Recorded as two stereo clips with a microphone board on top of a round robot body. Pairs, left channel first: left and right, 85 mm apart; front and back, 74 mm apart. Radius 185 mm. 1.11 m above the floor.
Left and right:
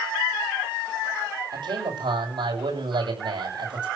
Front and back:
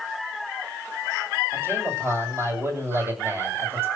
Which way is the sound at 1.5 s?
120° right.